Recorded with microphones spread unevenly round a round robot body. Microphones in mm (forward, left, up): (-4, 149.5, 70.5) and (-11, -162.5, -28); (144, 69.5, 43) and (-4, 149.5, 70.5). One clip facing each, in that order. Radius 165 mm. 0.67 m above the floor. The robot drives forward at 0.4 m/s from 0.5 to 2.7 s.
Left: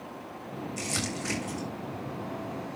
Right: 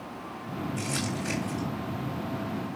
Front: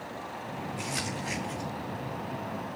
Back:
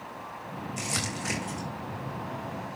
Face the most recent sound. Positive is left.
turn(degrees=160)